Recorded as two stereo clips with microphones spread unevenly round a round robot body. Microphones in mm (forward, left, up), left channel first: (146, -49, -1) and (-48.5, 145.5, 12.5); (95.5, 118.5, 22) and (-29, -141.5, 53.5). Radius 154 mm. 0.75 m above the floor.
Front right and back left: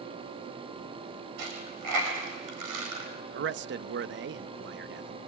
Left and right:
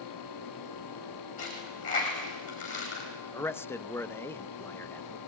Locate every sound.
1.4 s a dropped coin: 130° left, 5 m
3.3 s a man speaking: 130° left, 0.5 m